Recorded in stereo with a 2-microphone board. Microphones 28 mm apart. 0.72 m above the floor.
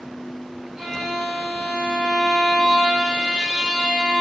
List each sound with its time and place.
0.8 s a violin: 10° right (ahead or behind), 0.8 m